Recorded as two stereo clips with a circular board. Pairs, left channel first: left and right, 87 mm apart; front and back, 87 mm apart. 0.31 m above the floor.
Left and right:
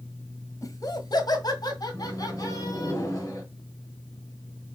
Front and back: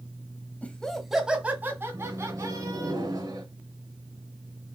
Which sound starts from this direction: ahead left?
Laughter, at 0.6 s.